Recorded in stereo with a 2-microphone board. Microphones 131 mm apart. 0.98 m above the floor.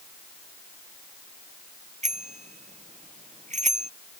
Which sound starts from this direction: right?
A bicycle bell, at 2.0 s.